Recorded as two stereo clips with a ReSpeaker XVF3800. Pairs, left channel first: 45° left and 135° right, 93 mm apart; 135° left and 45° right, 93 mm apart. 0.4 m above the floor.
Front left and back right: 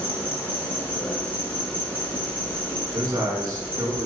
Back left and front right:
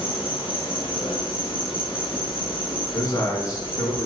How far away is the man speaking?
About 4.5 m.